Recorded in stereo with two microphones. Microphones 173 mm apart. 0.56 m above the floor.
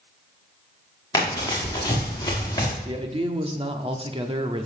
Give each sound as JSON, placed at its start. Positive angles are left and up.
{"t": 1.1, "sound": "running footsteps", "side_deg": 20, "distance_m": 5.0}
{"t": 2.9, "sound": "a man speaking", "side_deg": -35, "distance_m": 0.9}